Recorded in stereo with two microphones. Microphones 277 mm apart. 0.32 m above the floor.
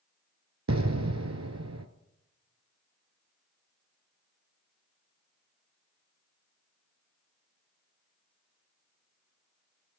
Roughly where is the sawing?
I don't hear sawing.